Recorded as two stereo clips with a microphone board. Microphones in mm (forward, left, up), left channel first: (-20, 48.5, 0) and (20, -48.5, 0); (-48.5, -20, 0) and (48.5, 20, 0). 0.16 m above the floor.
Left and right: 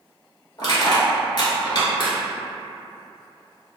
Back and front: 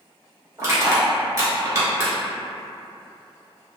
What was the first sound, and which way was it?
Crushing, 75° left.